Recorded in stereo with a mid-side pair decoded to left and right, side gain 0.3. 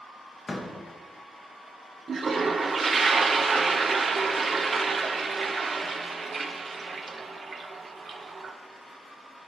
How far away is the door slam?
About 1.0 m.